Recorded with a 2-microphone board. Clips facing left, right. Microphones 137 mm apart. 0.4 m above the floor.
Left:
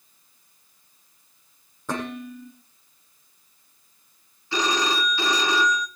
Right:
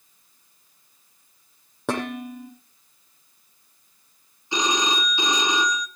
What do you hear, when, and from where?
1.9 s dishes clattering: 80° right, 9 m
4.5 s a phone ringing: 20° right (ahead or behind), 2 m